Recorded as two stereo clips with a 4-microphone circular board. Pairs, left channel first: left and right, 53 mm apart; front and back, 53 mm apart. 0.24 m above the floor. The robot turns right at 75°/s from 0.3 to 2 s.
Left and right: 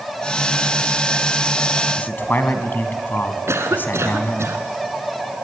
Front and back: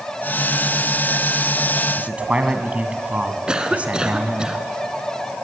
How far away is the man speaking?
About 2 m.